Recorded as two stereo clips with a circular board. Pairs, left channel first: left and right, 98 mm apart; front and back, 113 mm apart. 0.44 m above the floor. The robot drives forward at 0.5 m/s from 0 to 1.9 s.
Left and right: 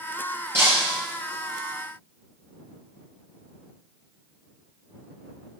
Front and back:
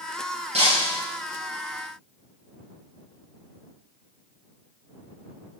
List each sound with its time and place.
0.5 s breaking glass: 155° right, 4.5 m